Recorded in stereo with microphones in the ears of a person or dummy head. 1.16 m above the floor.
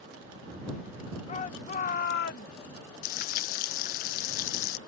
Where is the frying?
40° left (ahead or behind).